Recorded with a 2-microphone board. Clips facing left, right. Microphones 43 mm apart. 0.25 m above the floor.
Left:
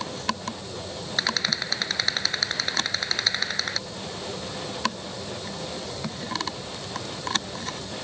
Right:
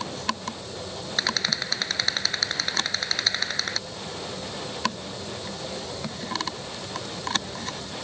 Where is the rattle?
Centre (ahead or behind).